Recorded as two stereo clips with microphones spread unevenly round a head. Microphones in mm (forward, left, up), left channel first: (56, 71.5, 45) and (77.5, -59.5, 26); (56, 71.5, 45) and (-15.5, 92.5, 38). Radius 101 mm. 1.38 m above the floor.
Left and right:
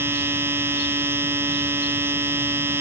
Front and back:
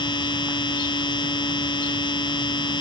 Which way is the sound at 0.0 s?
5° right.